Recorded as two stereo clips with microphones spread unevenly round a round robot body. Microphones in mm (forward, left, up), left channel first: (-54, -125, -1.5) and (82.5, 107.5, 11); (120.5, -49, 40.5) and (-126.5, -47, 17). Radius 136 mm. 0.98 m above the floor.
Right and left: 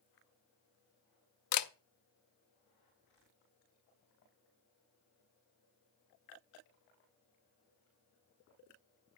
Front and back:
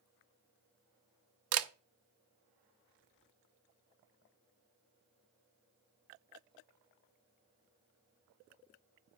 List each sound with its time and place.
1.5 s a camera shutter: 150° right, 0.8 m